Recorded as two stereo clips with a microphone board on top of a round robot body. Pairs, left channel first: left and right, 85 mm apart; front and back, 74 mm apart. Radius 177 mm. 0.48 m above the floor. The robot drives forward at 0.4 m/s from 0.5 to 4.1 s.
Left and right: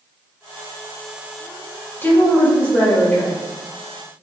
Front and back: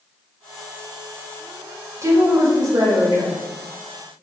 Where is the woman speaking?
150° left, 1.2 m; by 3.4 s 160° left, 1.6 m.